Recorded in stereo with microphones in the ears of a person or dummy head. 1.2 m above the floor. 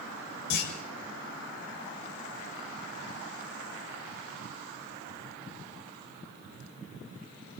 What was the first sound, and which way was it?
A clunk, 65° left (ahead or behind).